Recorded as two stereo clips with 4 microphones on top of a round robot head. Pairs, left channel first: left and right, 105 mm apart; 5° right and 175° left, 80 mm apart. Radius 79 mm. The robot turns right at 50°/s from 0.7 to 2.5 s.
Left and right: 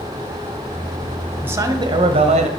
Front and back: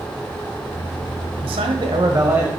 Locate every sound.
1.4 s a man speaking: 160° right, 1.1 m; by 2.5 s 110° right, 1.1 m